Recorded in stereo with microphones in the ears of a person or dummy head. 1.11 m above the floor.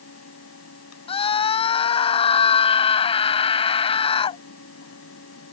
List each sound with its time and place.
0.0 s a fan: 80° left
1.1 s a scream: 40° left (ahead or behind)